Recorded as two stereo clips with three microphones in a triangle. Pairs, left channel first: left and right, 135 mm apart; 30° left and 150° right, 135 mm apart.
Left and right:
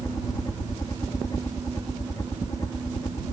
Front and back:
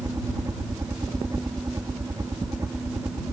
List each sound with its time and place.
0.0 s a helicopter: 150° left